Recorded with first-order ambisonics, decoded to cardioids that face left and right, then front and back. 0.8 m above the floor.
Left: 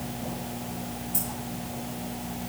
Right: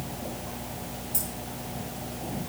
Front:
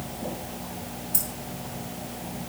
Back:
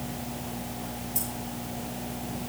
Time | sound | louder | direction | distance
1.1 | keys jangling | left 1 dB, front 4 dB | 5° right | 7 m